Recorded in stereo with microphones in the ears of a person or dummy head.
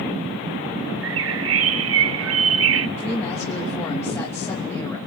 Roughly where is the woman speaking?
Centre.